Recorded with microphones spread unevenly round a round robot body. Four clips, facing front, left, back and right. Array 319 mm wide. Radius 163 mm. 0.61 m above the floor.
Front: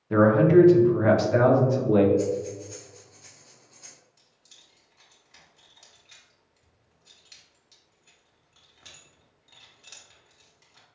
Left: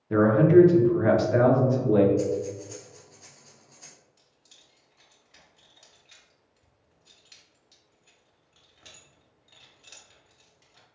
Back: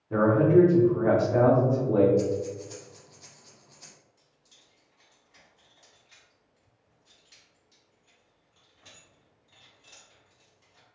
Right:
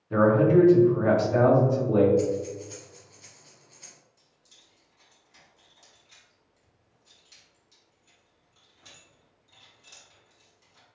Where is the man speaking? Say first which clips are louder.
Left 2 dB, front 3 dB; 45° left, 1.1 m.